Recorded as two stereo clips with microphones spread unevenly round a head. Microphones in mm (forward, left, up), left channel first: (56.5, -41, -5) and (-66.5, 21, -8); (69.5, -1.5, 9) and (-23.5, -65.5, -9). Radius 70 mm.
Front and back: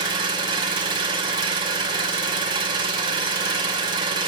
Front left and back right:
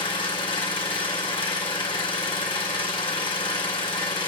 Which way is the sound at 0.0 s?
95° left.